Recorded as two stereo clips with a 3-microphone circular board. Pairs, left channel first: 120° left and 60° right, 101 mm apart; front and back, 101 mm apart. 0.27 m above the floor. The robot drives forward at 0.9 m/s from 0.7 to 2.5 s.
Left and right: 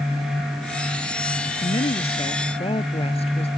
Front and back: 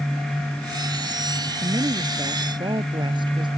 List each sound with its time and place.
1.6 s a woman speaking: 130° left; by 3.5 s 140° left